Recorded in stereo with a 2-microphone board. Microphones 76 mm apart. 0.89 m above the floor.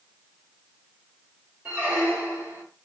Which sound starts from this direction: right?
A squeak, at 1.6 s.